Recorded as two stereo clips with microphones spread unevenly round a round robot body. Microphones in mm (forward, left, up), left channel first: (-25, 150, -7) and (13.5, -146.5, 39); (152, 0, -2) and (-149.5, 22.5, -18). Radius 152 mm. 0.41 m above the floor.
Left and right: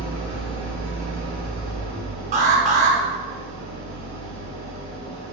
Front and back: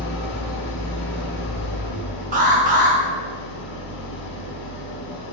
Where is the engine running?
20° left, 0.7 m.